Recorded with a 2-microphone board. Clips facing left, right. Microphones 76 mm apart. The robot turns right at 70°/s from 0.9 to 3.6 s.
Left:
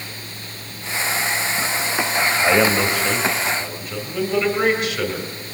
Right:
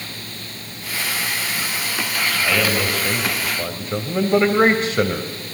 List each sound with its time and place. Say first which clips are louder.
2.4 s a man speaking: left 4 dB; 130° left, 2.5 m; by 5.3 s 145° right, 2.5 m